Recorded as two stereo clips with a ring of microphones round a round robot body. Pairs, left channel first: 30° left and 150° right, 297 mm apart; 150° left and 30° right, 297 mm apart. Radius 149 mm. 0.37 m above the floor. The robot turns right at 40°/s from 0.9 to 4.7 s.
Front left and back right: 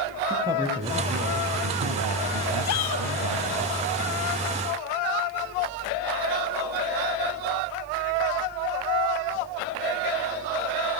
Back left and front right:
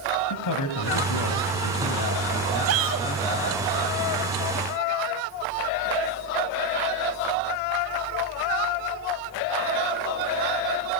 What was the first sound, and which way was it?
A man speaking, 135° left.